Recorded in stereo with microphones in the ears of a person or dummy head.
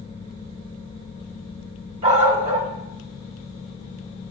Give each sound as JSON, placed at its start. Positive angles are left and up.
{"t": 2.0, "sound": "a dog barking", "side_deg": -35, "distance_m": 4.5}